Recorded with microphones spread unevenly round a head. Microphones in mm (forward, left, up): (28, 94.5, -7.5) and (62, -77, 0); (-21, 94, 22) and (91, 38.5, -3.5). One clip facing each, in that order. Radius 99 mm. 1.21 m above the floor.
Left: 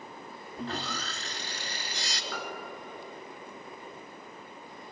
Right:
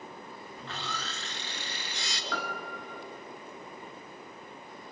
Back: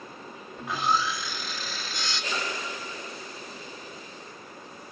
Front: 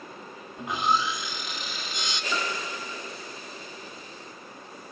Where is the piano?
60° right, 3.5 m.